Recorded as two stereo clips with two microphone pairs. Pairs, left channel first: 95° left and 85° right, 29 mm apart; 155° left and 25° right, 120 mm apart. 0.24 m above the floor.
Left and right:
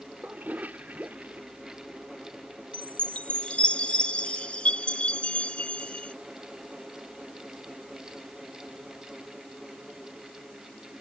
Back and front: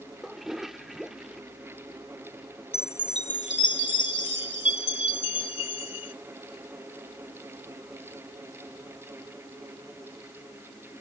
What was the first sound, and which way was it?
A toilet flushing, 110° right.